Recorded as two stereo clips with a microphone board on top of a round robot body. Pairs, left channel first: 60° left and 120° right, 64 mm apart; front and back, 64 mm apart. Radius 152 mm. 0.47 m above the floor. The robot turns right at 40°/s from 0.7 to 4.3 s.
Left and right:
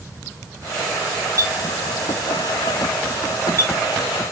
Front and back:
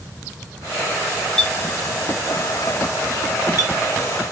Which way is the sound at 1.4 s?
80° right.